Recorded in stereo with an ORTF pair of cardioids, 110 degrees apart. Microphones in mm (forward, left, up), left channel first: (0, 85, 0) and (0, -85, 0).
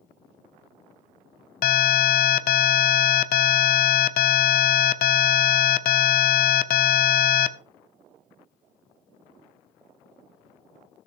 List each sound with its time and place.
1.6 s an alarm: 60° left, 0.7 m